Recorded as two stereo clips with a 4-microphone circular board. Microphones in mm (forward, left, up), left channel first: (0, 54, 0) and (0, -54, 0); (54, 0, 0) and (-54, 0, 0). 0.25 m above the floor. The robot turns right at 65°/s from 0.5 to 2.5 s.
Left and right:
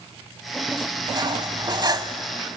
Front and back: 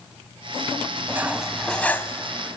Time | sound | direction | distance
1.1 | cutlery clinking | 120° right | 1.1 m